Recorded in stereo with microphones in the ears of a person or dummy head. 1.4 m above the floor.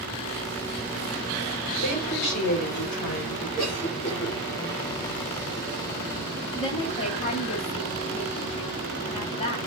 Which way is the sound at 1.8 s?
50° left (ahead or behind).